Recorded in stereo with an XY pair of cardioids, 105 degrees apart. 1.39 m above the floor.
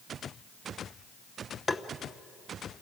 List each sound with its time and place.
1.7 s tapping: 30° left, 0.9 m